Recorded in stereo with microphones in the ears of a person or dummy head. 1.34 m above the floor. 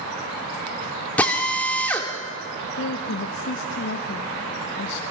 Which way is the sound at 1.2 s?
10° left (ahead or behind).